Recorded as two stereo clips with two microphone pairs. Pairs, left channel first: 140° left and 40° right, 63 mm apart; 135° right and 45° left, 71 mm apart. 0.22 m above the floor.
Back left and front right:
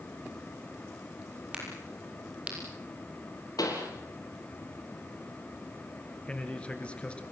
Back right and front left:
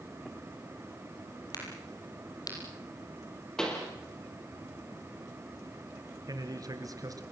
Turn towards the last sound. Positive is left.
turn(degrees=70)